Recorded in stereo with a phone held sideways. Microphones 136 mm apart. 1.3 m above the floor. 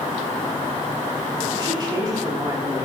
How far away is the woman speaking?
About 3.5 m.